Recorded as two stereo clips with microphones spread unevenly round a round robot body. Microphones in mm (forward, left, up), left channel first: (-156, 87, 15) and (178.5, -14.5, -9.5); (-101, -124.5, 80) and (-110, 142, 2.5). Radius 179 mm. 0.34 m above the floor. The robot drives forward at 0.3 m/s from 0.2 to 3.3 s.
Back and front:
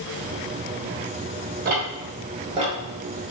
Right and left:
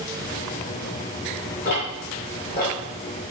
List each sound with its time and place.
1.6 s ticking: 30° right, 1.2 m; by 2.8 s 55° right, 1.1 m